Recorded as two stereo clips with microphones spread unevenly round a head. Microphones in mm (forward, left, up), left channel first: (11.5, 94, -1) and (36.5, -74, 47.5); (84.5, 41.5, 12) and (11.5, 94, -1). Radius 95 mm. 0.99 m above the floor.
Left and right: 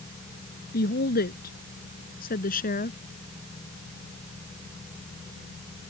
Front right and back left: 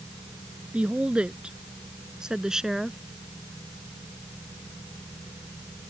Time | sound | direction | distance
0.7 | a woman speaking | 65° left | ?